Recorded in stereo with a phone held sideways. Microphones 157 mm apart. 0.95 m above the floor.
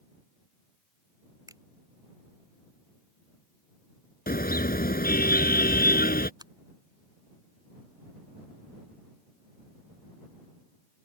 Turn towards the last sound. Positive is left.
turn(degrees=-25)  # may be behind; listen again after turning